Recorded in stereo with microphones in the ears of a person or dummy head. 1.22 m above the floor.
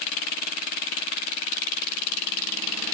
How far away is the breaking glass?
No breaking glass in this recording.